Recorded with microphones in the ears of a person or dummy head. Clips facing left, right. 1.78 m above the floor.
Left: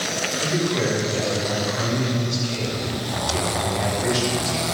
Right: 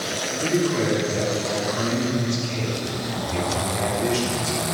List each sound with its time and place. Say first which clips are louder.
0.4 s a man speaking: right 2 dB; 50° right (ahead or behind), 5 m